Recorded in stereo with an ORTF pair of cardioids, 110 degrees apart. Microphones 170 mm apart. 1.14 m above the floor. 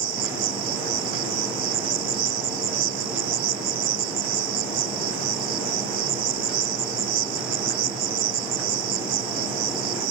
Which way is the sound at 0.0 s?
60° right.